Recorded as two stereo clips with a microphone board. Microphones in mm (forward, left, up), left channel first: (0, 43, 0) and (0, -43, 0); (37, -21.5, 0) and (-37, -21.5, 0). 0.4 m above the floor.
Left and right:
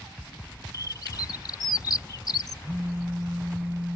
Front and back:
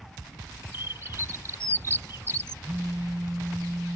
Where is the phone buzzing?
145° right.